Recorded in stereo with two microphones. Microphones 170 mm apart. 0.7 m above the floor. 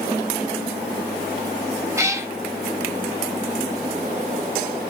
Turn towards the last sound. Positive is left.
turn(degrees=-15)  # may be behind; listen again after turning